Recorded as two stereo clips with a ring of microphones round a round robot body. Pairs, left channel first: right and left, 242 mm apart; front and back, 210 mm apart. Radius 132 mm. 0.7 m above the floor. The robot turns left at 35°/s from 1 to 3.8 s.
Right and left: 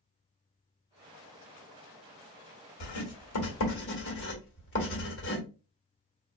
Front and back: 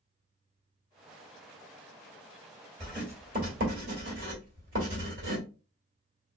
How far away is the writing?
About 1.3 m.